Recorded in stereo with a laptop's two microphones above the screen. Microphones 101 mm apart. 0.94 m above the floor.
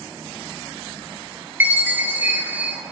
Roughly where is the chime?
Centre.